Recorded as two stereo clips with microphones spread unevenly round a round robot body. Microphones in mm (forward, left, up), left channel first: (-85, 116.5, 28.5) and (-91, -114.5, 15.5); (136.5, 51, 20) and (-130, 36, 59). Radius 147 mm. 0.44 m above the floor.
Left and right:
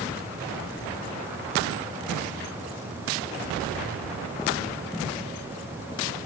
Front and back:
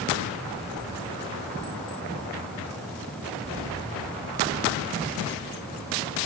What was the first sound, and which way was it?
Only background noise.